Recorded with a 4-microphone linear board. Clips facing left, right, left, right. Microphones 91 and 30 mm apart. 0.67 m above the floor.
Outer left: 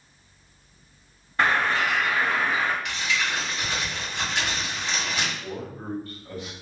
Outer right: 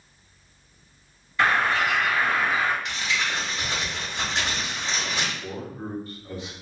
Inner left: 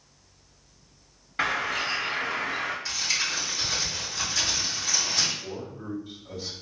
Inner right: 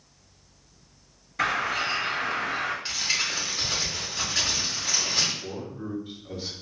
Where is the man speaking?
20° right (ahead or behind), 0.8 m.